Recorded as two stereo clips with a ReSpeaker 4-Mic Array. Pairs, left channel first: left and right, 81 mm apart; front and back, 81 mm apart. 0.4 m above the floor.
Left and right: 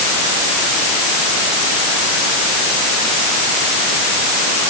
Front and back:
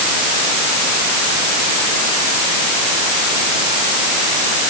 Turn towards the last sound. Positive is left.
No sound to turn to.